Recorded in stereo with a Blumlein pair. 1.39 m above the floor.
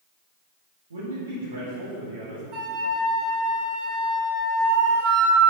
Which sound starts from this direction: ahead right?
A flute, at 2.5 s.